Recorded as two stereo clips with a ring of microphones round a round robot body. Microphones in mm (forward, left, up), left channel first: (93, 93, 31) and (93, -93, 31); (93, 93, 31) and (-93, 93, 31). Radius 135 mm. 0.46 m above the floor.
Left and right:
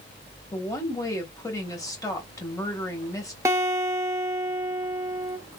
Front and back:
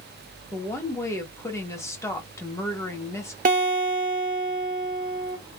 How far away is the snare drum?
I don't hear a snare drum.